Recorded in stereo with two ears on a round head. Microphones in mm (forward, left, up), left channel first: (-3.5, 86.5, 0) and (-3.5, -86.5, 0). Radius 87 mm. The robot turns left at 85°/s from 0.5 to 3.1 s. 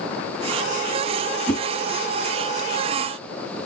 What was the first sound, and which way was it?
A whoosh, 10° left (ahead or behind).